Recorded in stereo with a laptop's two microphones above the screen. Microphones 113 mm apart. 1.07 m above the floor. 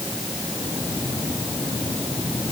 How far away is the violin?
No violin in this recording.